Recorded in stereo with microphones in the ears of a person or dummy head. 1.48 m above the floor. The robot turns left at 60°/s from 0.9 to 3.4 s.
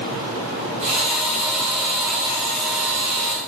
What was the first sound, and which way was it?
Only background noise.